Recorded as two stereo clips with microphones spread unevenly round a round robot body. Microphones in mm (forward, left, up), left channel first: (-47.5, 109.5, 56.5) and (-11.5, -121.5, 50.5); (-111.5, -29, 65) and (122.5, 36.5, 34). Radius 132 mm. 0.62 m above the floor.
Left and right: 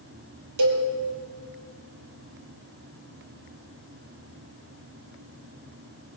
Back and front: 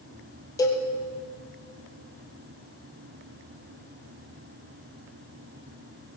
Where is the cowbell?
90° right, 3 m.